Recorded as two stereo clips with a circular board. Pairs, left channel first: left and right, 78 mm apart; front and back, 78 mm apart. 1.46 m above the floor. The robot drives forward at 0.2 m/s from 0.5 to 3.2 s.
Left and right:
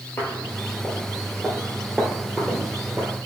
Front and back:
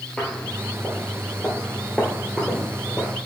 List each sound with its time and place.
0.2 s footsteps: 65° left, 1.6 m; by 3.1 s 90° right, 1.7 m